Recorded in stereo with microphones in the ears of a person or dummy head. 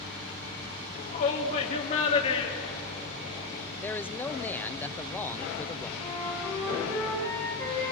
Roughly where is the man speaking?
Centre.